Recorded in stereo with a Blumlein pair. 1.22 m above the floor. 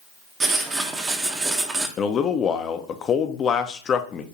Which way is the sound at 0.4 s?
15° right.